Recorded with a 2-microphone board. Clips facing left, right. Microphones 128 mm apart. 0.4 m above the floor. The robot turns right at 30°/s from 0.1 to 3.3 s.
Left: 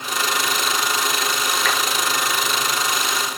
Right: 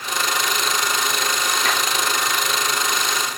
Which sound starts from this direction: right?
A clap, at 1.6 s.